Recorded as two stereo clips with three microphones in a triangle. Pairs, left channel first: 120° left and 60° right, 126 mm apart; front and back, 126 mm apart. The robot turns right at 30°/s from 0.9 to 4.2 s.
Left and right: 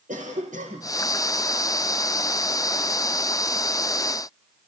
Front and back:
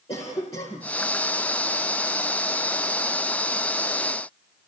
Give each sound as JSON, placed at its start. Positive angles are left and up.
{"t": 0.1, "sound": "a cough", "azimuth_deg": -45, "distance_m": 7.0}